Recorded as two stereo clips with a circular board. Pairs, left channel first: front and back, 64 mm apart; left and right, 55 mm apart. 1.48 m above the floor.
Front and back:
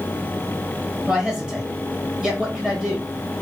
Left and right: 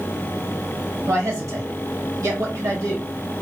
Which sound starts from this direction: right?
A man speaking, at 1.1 s.